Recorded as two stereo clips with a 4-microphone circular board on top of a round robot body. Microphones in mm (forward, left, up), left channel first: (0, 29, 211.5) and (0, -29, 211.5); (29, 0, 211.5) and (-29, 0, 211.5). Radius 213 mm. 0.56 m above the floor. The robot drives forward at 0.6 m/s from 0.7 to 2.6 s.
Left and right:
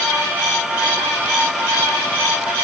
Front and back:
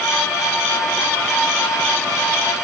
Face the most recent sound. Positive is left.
No sound to turn to.